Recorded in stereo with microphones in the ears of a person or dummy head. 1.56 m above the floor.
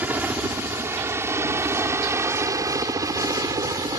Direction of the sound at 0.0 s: 10° right (ahead or behind).